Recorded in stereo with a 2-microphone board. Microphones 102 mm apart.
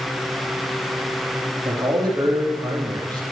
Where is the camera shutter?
No camera shutter in this recording.